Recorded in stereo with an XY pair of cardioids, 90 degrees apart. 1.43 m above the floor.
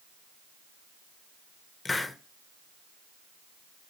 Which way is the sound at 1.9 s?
30° left.